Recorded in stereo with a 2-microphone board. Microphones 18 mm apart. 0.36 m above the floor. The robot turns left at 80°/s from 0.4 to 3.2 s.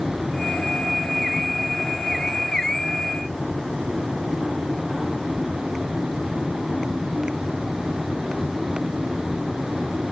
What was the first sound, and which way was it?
Only background noise.